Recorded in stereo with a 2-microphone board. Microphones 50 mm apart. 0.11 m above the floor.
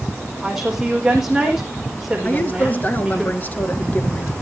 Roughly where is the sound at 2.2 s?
Left.